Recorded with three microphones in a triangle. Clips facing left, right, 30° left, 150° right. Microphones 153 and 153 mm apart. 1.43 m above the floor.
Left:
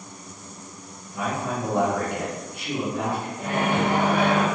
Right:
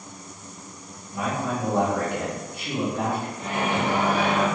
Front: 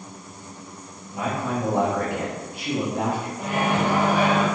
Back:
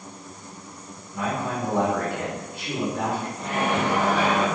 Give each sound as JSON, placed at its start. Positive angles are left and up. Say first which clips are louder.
{"t": 1.1, "sound": "a man speaking", "louder": "right 1 dB, front 1 dB", "azimuth_deg": -20, "distance_m": 1.3}
{"t": 3.4, "sound": "a microwave", "louder": "left 4 dB, front 2 dB", "azimuth_deg": 105, "distance_m": 0.8}